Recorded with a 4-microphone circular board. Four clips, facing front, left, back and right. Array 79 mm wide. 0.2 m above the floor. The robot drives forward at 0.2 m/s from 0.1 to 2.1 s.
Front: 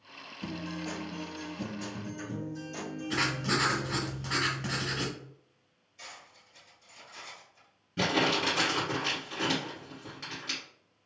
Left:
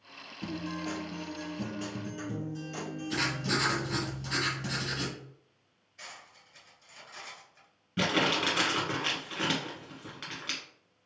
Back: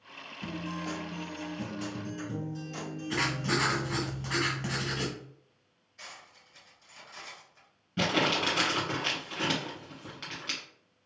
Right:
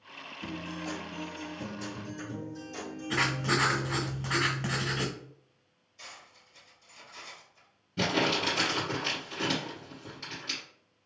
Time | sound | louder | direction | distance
0.4 | a guitar | left 2 dB, back 1 dB | 100° left | 1.2 m
3.1 | writing | right 4 dB, even | 100° right | 0.6 m
6.0 | cutlery clinking | left 1 dB, even | 130° left | 1.5 m
8.0 | crumpling | even, even | 115° left | 1.6 m